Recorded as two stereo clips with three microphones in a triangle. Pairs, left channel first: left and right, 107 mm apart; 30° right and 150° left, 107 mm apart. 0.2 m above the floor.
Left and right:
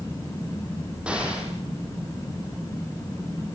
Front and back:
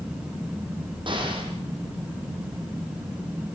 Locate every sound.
1.1 s an explosion: 170° right, 5 m